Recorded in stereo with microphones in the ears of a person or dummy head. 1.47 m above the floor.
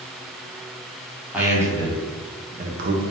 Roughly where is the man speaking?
Centre.